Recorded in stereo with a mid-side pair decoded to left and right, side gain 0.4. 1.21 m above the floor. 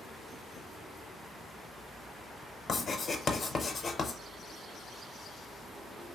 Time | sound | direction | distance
2.7 | writing | 50° left | 0.7 m